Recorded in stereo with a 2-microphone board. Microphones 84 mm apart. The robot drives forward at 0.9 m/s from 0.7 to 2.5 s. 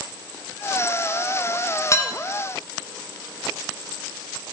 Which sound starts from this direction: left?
Dishes clattering, at 1.9 s.